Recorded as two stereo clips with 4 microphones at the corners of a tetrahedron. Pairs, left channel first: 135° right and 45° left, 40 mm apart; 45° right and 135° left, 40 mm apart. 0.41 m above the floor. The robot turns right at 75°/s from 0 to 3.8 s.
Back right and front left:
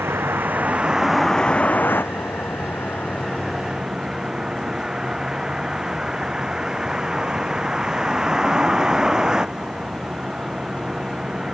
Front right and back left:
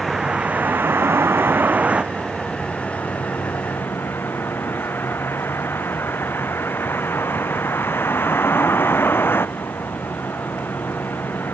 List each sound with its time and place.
0.0 s a vehicle: 45° left; by 11.5 s 30° right